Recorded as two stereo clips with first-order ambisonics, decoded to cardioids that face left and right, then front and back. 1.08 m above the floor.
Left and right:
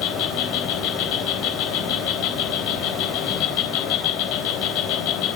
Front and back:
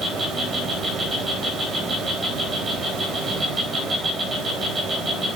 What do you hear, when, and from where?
0.0 s an insect: 100° left, 3.5 m